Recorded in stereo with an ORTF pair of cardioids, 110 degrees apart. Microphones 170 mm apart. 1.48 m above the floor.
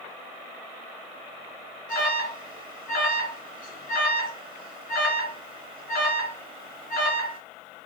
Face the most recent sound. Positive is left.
turn(degrees=70)